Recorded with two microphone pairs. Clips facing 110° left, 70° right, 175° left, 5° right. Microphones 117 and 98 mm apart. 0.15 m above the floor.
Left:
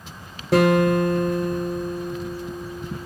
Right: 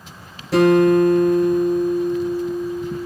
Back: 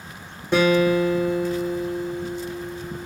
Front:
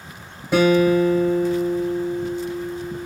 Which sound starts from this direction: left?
A guitar, at 0.5 s.